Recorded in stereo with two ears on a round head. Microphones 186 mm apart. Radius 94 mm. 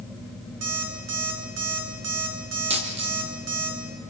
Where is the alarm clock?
70° right (ahead or behind), 5 m.